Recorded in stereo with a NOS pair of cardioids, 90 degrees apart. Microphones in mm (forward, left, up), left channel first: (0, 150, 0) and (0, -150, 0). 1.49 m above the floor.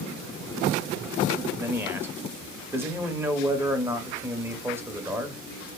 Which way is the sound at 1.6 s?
5° right.